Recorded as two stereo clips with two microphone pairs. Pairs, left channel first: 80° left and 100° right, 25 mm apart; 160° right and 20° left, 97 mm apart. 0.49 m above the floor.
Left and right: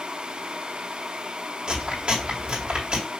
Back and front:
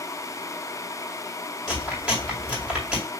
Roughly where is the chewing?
Ahead right.